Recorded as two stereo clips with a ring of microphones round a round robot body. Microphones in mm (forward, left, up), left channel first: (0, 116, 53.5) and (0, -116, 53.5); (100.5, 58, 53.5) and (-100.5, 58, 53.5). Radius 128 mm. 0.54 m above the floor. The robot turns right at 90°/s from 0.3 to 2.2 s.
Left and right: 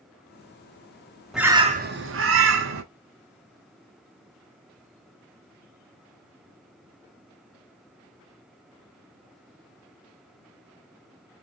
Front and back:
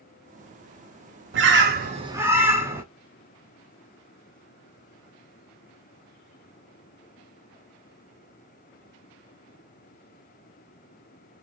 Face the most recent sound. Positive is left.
turn(degrees=-100)